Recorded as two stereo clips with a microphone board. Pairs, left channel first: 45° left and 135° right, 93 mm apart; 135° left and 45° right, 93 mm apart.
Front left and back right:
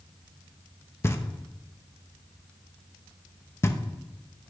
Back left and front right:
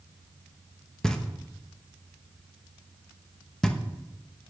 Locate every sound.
1.0 s knocking: 60° left, 0.9 m